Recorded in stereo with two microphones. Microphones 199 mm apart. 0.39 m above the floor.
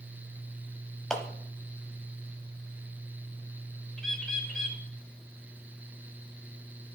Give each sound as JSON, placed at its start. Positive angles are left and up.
{"t": 1.1, "sound": "a clap", "side_deg": 5, "distance_m": 1.4}
{"t": 4.0, "sound": "a bird", "side_deg": 5, "distance_m": 1.6}